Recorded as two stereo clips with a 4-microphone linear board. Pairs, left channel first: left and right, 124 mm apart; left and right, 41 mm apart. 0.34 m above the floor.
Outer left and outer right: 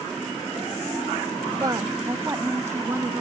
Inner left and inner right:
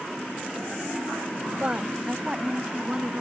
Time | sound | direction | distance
1.6 | a woman speaking | 35° right (ahead or behind) | ?